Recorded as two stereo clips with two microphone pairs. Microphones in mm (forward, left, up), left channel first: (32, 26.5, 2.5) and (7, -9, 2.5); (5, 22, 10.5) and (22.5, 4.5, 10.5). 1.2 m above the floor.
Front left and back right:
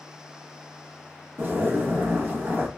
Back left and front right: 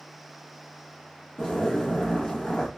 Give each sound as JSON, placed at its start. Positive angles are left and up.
{"t": 1.4, "sound": "a zipper", "azimuth_deg": -170, "distance_m": 1.1}